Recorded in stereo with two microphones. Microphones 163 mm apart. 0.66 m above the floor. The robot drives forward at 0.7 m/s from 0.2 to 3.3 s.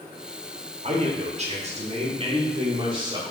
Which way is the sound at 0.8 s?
45° right (ahead or behind).